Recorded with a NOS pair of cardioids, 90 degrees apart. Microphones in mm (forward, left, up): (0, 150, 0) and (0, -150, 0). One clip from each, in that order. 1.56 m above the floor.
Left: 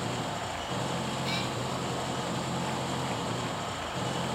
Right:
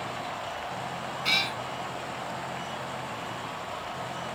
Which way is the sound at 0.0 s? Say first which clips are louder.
Even; 60° left.